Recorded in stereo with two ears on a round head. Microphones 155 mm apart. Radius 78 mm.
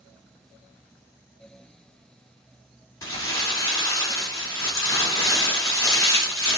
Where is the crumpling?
20° left (ahead or behind), 1.5 m.